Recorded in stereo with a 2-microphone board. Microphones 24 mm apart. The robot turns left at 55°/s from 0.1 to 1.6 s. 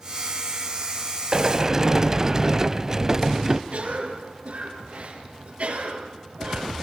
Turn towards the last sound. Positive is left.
turn(degrees=-70)  # may be behind; listen again after turning